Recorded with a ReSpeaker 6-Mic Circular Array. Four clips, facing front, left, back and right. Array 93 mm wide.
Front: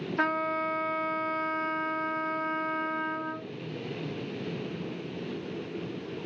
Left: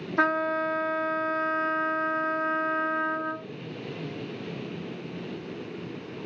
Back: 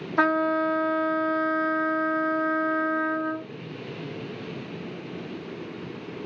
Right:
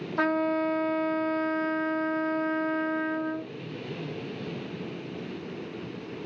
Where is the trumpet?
170° left, 1.0 m.